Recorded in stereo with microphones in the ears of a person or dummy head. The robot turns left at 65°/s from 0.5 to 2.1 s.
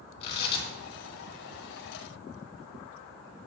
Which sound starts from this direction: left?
Tearing paper, at 0.2 s.